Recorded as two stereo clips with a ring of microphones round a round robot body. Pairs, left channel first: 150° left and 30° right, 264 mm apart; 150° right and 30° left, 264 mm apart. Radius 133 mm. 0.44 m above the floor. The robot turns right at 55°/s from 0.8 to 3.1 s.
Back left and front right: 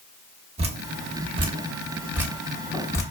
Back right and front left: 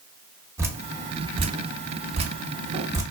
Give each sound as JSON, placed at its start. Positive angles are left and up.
{"t": 0.6, "sound": "dripping", "azimuth_deg": -35, "distance_m": 1.3}